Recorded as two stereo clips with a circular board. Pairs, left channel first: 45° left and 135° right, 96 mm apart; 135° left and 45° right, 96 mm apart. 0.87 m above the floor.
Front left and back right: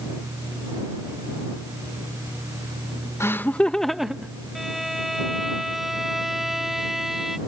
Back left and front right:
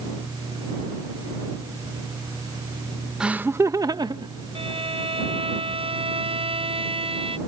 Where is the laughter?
25° left; by 4.3 s 55° right.